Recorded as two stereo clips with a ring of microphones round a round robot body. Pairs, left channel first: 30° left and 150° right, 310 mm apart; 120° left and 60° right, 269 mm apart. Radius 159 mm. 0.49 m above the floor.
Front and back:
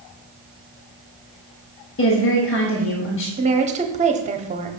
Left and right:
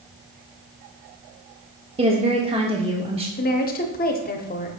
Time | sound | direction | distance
2.0 | a woman speaking | straight ahead | 1.0 m
3.4 | a woman speaking | 155° left | 0.9 m